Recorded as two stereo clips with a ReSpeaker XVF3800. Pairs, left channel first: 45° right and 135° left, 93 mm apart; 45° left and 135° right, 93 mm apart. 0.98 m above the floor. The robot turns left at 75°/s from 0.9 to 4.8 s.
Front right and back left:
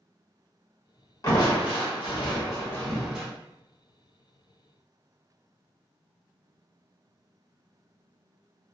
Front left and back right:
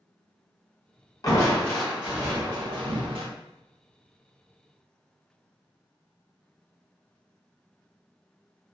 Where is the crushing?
Straight ahead, 0.9 m; by 3.3 s 150° right, 0.9 m.